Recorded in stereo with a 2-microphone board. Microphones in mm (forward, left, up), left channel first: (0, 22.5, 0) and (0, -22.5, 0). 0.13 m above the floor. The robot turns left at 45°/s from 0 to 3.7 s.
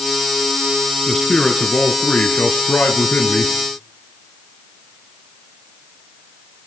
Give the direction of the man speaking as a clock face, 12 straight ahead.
6 o'clock.